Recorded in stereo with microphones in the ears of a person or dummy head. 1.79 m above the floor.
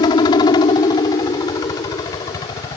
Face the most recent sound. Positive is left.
turn(degrees=20)  # may be behind; listen again after turning